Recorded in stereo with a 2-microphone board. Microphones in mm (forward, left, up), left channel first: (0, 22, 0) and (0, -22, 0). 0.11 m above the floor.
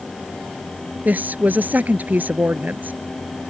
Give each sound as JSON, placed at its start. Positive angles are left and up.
{"t": 1.1, "sound": "a woman speaking", "side_deg": -40}